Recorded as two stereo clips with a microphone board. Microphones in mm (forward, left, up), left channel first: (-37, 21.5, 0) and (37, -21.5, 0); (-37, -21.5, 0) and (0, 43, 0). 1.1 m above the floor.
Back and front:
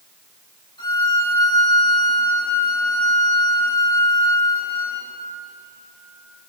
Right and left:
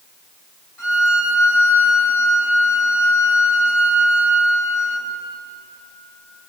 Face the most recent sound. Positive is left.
turn(degrees=-175)